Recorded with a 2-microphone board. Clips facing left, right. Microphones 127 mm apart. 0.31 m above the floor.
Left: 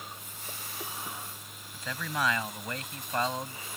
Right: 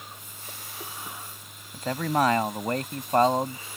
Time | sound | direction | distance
1.7 | a man speaking | 50° right (ahead or behind) | ?